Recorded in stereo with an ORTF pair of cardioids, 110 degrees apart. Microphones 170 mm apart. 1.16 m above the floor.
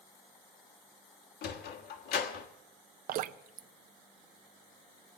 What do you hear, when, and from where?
1.4 s a sliding door: 70° left, 1.4 m
3.1 s dripping: 60° right, 0.6 m